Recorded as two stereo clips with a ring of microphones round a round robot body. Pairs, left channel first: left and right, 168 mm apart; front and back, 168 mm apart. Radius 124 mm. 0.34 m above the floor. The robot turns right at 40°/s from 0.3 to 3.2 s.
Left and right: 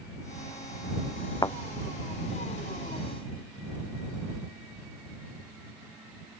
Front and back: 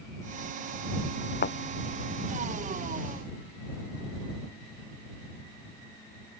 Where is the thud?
20° left; by 1.6 s 25° left.